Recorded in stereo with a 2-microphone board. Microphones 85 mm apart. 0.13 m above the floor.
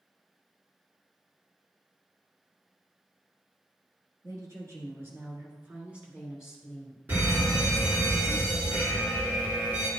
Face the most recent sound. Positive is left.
turn(degrees=-25)  # may be behind; listen again after turning